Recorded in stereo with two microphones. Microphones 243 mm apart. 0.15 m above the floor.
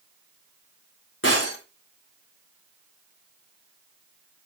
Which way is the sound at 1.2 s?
55° left (ahead or behind).